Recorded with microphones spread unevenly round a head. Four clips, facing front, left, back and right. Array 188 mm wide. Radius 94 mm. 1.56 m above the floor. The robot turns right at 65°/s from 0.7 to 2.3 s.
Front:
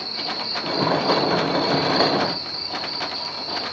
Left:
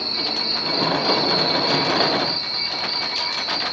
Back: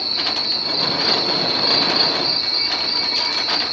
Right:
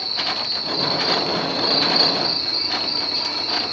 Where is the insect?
125° left, 6.5 m; by 3.7 s 130° right, 6.5 m.